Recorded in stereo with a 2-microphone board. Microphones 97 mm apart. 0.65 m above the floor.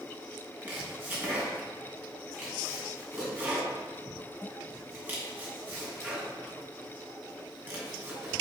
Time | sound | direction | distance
0.6 | chopping | 20° right (ahead or behind) | 3 m